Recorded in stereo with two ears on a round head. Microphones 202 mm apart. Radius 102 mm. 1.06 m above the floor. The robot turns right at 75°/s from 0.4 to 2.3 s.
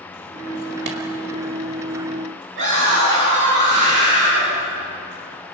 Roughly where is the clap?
Right.